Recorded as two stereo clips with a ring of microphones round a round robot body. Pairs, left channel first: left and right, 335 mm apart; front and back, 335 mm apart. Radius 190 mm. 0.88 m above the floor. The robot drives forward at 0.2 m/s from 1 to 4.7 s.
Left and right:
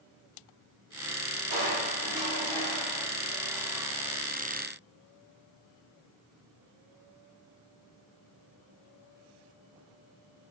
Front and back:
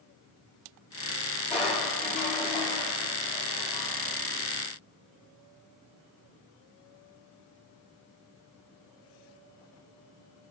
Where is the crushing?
85° right, 3 m; by 4.2 s 95° right, 3 m.